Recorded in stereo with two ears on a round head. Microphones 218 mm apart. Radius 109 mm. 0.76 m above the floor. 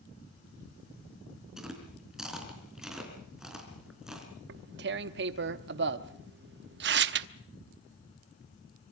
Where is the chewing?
5° right (ahead or behind), 4 m.